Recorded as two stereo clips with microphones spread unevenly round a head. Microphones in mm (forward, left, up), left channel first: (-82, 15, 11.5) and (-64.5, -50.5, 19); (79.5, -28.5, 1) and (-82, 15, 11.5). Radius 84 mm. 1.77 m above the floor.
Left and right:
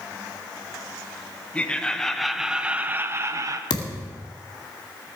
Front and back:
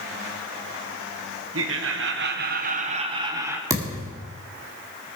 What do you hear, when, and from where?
1.5 s laughter: straight behind, 1.7 m; by 3.6 s 115° right, 1.3 m
3.7 s a thud: 95° left, 2.5 m